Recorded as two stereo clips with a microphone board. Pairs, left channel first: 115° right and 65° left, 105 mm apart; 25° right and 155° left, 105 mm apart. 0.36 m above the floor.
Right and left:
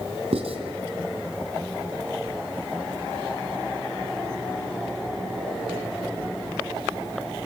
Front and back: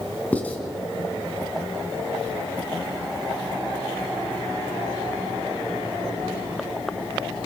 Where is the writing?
50° left, 2.5 m.